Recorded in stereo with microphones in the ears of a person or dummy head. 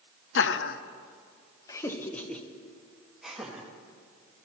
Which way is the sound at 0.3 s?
60° left (ahead or behind).